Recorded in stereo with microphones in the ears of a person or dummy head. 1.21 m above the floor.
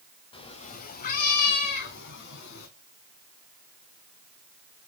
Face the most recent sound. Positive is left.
turn(degrees=55)  # may be behind; listen again after turning